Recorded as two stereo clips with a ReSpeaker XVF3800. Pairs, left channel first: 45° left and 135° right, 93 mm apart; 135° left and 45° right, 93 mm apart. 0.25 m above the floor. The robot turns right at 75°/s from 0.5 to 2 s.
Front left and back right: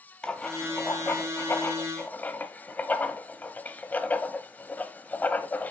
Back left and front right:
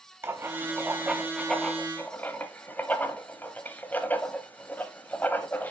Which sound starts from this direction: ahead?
Writing, at 0.2 s.